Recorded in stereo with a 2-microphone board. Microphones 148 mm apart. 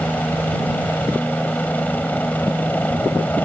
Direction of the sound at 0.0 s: 10° left (ahead or behind).